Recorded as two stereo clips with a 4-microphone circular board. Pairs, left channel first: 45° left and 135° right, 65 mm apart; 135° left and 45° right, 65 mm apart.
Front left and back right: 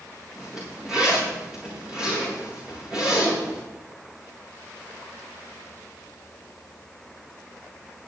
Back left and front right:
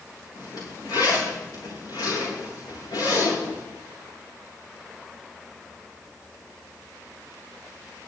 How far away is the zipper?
About 9.5 m.